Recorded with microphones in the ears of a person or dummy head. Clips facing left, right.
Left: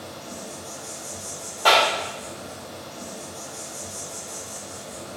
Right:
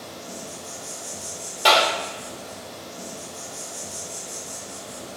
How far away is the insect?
About 0.7 m.